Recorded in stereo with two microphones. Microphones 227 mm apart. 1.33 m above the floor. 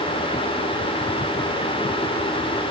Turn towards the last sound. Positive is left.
No sound to turn to.